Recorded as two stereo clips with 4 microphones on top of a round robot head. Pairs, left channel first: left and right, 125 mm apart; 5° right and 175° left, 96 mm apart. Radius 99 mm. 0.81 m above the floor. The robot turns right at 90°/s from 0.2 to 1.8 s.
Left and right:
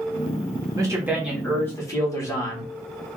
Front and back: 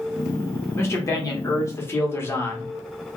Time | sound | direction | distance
0.8 | a man speaking | 55° right | 1.2 m